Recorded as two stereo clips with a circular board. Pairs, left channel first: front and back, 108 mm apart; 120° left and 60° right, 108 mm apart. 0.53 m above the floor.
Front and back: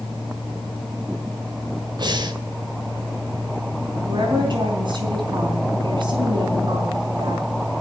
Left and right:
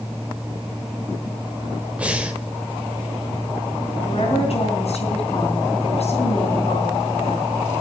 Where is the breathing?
135° right, 1.6 m.